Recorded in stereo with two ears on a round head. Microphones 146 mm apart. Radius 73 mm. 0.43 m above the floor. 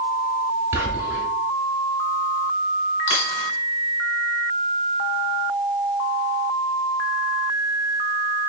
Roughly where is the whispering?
Centre.